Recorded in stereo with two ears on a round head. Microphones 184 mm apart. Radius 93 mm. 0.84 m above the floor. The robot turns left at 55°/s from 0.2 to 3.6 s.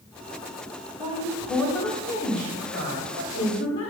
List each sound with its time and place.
1.0 s a woman speaking: 145° right, 1.8 m; by 3.9 s 70° left, 1.8 m